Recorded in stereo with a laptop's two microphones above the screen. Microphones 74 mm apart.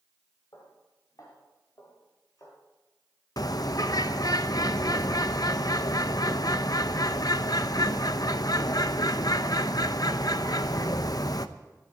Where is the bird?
55° left (ahead or behind), 0.7 m.